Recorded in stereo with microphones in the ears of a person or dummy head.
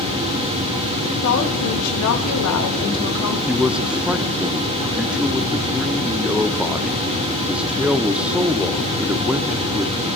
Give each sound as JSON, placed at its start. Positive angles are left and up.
{"t": 1.2, "sound": "a woman speaking", "side_deg": 85, "distance_m": 1.9}
{"t": 3.5, "sound": "a man speaking", "side_deg": -5, "distance_m": 0.7}